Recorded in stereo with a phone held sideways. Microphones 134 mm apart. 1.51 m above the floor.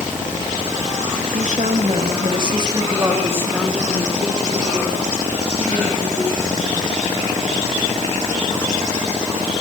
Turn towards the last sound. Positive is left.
turn(degrees=15)  # may be behind; listen again after turning